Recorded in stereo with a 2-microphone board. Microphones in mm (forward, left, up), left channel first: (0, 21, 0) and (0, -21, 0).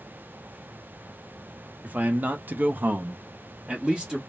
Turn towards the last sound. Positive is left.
turn(degrees=-15)  # may be behind; listen again after turning